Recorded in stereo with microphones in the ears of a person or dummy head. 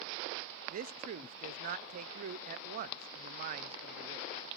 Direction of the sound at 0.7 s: 45° right (ahead or behind).